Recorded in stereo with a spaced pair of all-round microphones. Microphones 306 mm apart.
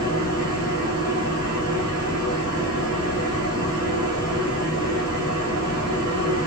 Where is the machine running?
30° left (ahead or behind), 1.6 m.